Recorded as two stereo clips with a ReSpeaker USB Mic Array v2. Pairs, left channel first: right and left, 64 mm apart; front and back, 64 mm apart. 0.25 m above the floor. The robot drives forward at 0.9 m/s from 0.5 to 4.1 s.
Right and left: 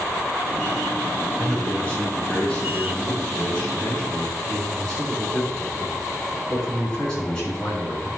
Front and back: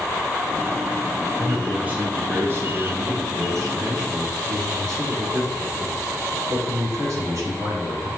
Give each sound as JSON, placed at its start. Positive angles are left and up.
{"t": 1.4, "sound": "a man speaking", "azimuth_deg": -110, "distance_m": 1.4}